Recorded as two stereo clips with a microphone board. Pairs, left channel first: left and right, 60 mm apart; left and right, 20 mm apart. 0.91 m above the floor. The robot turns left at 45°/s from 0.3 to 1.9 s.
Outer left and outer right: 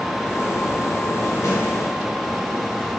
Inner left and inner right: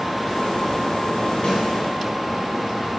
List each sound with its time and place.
1.4 s a snare drum: 75° left (ahead or behind), 1.4 m; by 1.6 s 70° left (ahead or behind), 1.4 m